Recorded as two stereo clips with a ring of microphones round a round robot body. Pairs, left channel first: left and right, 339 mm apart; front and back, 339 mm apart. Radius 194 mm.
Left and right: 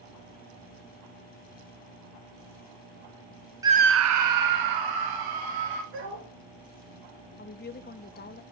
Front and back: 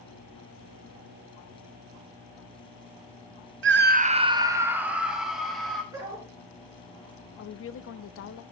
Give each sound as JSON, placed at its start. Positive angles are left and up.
{"t": 3.6, "sound": "a scream", "azimuth_deg": -165, "distance_m": 0.7}
{"t": 5.9, "sound": "a dog barking", "azimuth_deg": -100, "distance_m": 4.5}
{"t": 7.4, "sound": "a woman speaking", "azimuth_deg": 35, "distance_m": 0.7}